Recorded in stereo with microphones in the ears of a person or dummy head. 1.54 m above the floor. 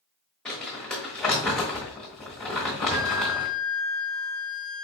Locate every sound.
0.5 s crumpling: centre (ahead or behind), 1.2 m
2.9 s a flute: 70° right (ahead or behind), 2.5 m